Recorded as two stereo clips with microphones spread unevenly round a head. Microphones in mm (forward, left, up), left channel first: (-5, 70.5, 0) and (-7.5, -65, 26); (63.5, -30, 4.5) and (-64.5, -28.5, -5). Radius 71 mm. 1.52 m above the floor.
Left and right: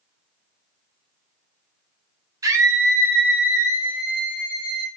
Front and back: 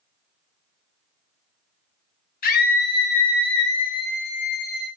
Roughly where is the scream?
Ahead.